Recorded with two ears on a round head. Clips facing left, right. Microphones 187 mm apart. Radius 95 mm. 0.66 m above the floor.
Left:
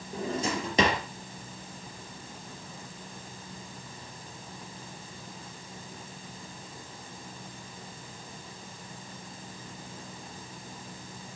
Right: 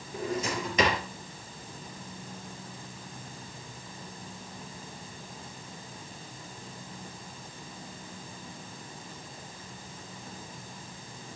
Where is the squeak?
No squeak in this recording.